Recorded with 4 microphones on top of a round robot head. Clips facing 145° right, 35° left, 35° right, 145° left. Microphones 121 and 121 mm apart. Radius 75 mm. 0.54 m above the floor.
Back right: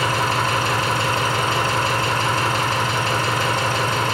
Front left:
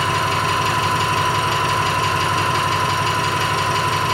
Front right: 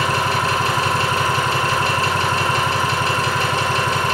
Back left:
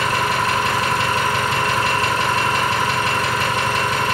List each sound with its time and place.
0.0 s an engine running: 90° right, 4.5 m